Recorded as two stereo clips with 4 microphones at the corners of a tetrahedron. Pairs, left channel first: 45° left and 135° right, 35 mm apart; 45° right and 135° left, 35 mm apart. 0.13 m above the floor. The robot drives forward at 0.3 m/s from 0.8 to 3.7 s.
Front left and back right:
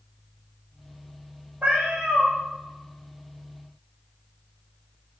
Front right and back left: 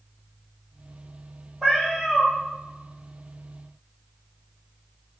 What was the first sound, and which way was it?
A cat meowing, 120° right.